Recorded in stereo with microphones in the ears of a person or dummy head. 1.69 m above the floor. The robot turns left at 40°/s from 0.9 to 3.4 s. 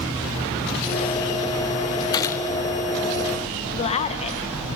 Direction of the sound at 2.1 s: 20° left (ahead or behind).